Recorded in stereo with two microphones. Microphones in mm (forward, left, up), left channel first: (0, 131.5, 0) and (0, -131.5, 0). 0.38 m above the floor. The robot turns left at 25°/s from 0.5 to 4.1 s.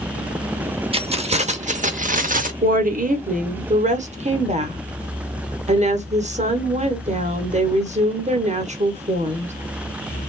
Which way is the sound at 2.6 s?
85° right.